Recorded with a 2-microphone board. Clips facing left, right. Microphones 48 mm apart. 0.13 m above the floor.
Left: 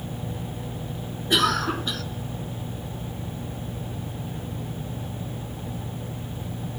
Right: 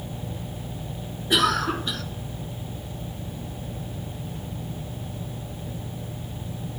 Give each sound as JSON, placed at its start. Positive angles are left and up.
{"t": 1.3, "sound": "a cough", "side_deg": 0, "distance_m": 1.2}